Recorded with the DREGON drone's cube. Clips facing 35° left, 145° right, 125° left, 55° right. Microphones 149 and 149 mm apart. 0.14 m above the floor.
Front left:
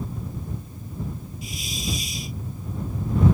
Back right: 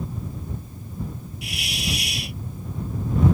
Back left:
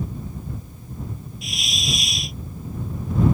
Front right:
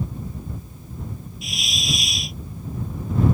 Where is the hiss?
145° right.